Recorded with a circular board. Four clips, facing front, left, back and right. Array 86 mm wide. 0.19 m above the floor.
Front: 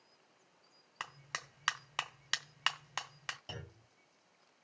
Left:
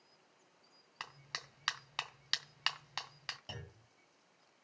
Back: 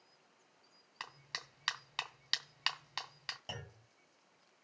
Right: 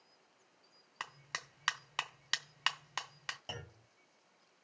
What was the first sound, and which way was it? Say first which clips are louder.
A clap: right 3 dB, front 4 dB; 35° right.